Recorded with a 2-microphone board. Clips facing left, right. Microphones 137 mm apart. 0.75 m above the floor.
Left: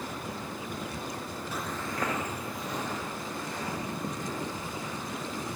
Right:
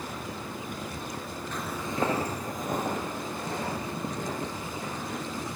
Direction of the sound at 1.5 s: 10° left (ahead or behind).